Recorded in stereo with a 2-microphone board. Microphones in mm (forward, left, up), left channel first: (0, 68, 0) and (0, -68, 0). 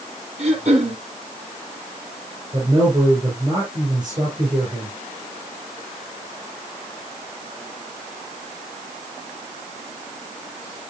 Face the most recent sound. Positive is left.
turn(degrees=-30)  # may be behind; listen again after turning